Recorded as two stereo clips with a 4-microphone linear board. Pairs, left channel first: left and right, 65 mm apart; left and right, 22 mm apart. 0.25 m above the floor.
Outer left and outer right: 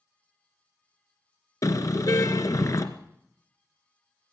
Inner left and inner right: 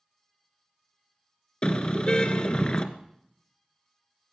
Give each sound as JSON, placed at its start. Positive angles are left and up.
{"t": 1.6, "sound": "a car horn", "side_deg": 55, "distance_m": 2.5}